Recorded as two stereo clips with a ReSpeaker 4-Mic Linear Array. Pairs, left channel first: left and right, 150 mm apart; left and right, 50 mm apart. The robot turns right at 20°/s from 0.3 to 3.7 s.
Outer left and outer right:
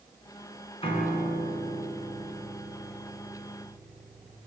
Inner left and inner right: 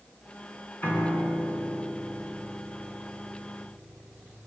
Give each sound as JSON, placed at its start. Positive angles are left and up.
{"t": 0.8, "sound": "a piano", "azimuth_deg": 35, "distance_m": 5.0}